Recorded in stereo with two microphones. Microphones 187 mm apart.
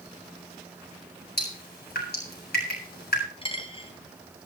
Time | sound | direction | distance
1.4 | dripping | 60° left (ahead or behind) | 7.5 m
3.4 | a dropped coin | 30° left (ahead or behind) | 2.0 m